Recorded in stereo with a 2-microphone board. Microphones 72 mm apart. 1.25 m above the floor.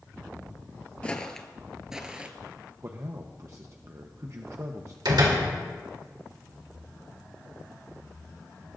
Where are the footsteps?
15° left (ahead or behind), 1.3 m; by 2.3 s 20° right (ahead or behind), 1.3 m.